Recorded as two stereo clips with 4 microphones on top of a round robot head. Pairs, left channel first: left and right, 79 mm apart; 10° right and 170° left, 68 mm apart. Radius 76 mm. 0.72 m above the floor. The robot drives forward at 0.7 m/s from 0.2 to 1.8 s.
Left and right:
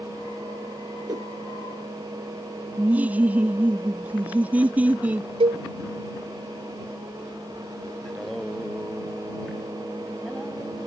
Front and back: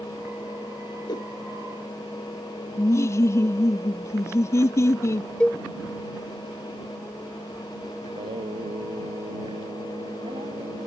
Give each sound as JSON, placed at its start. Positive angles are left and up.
{"t": 1.1, "sound": "a whoosh", "azimuth_deg": -45}
{"t": 2.8, "sound": "laughter", "azimuth_deg": -25}
{"t": 5.4, "sound": "a cowbell", "azimuth_deg": -90}
{"t": 8.1, "sound": "singing", "azimuth_deg": 180}